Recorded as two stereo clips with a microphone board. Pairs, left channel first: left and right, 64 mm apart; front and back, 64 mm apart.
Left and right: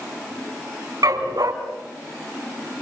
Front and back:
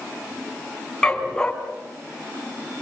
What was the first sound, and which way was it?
A dog barking, 75° right.